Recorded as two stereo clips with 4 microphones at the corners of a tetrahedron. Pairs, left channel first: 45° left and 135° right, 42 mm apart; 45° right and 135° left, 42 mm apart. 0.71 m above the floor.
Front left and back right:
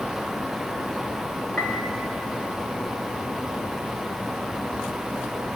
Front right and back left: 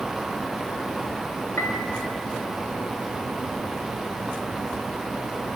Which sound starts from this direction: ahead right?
A piano, at 1.6 s.